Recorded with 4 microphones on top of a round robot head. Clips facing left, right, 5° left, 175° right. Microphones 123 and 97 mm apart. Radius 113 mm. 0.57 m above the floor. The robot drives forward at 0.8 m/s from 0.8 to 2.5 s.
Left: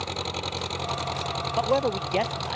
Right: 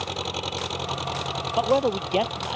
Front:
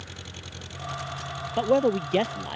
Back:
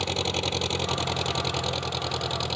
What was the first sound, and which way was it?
An engine running, 175° right.